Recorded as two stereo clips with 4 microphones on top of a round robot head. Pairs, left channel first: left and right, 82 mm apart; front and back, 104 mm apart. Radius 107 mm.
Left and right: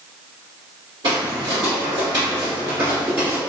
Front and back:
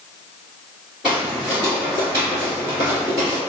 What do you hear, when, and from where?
1.0 s footsteps: 100° right, 1.9 m; by 3.4 s 155° right, 1.9 m